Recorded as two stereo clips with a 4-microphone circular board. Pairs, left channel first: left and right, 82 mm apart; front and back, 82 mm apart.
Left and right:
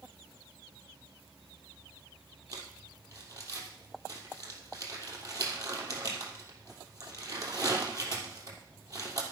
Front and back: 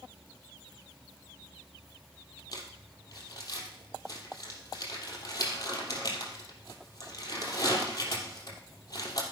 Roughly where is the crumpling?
Ahead right.